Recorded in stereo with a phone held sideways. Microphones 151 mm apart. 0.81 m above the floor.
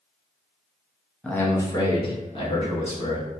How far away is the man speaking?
About 0.5 m.